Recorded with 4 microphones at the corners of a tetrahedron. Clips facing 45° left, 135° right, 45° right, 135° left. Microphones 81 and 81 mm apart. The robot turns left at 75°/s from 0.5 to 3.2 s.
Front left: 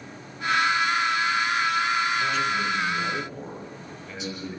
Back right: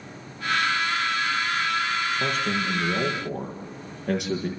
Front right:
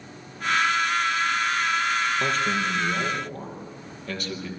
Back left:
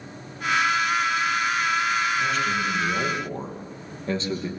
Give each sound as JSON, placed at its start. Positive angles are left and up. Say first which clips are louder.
{"t": 2.2, "sound": "a man speaking", "louder": "front left 1 dB, even", "azimuth_deg": -85, "distance_m": 7.5}